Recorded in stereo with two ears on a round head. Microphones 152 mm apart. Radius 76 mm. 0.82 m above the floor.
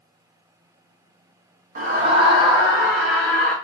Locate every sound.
1.8 s a scream: 45° right (ahead or behind), 0.9 m; by 3.5 s 10° left (ahead or behind), 1.1 m